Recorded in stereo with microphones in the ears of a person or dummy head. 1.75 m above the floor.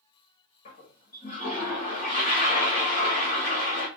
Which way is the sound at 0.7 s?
30° left (ahead or behind).